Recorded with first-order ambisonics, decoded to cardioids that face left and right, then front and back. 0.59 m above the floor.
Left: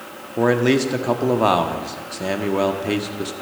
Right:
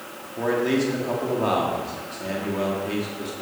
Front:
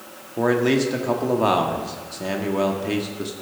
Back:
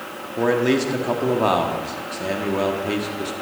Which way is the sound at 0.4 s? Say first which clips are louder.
Left 5 dB, even; 90° left.